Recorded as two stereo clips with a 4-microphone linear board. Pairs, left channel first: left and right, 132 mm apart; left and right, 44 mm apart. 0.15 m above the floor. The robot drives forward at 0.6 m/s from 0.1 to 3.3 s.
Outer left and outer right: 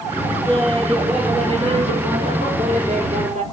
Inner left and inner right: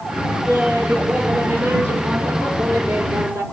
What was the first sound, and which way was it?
Laughter, 45° right (ahead or behind).